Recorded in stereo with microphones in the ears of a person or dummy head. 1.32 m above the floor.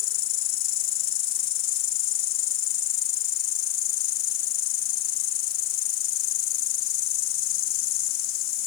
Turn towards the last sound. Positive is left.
turn(degrees=50)  # may be behind; listen again after turning